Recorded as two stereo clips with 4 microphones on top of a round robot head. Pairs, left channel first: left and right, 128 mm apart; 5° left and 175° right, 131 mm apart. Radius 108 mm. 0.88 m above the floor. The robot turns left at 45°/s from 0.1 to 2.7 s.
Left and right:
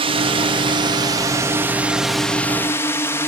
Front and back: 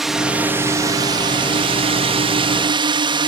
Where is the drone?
90° right; by 3.3 s 155° left.